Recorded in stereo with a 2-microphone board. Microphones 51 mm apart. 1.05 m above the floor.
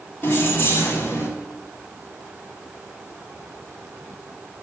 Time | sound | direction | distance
0.2 | keys jangling | 45° left (ahead or behind) | 1.6 m